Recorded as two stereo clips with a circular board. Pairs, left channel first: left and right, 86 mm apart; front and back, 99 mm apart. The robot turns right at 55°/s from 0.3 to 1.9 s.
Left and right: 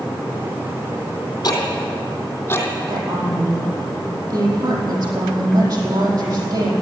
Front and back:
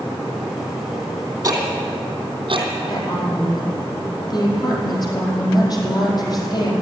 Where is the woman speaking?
45° right, 4.5 m.